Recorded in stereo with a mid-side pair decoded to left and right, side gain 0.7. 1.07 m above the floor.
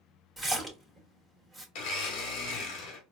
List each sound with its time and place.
0.4 s a splash: 10° right, 1.9 m
1.8 s a blender: 65° left, 1.2 m